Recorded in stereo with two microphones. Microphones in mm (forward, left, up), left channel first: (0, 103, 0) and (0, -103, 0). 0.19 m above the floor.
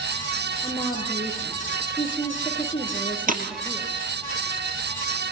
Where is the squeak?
No squeak in this recording.